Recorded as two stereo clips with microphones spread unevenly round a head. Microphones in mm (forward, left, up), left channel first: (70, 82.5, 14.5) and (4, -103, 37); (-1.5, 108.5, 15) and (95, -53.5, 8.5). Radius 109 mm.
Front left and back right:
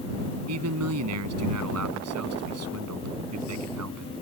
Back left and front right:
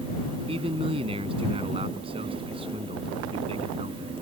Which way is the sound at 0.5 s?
125° right.